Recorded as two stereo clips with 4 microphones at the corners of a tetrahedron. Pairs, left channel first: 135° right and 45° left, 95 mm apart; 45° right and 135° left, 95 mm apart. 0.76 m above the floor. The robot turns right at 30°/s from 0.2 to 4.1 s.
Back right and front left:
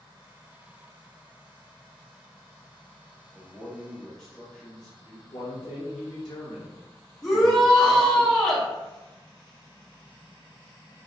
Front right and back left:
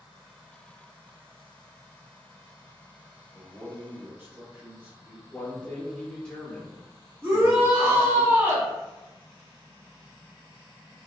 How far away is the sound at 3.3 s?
About 0.9 m.